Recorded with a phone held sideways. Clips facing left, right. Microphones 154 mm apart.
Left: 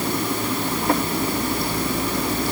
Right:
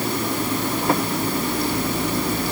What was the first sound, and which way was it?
Only background noise.